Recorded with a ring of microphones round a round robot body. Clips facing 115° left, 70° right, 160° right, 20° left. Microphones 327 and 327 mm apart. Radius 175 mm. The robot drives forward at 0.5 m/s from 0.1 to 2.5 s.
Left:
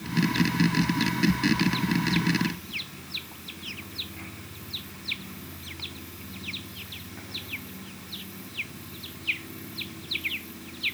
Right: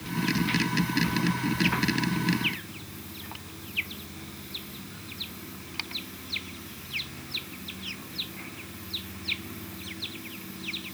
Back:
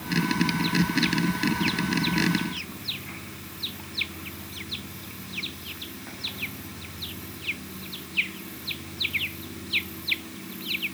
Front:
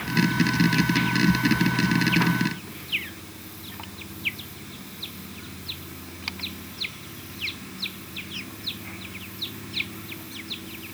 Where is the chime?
I don't hear a chime.